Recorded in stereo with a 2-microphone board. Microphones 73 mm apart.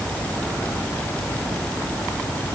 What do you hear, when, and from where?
Only background noise.